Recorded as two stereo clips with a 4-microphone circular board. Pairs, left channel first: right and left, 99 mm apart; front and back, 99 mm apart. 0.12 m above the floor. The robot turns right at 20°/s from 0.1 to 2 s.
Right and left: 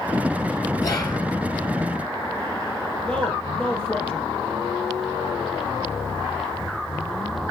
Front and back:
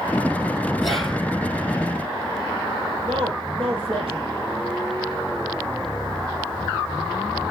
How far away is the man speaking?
About 4.5 m.